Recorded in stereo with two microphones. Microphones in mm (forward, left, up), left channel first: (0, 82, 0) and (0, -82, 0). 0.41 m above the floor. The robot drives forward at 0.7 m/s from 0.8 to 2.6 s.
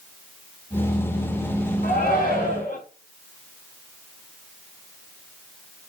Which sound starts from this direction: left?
A shout, at 1.8 s.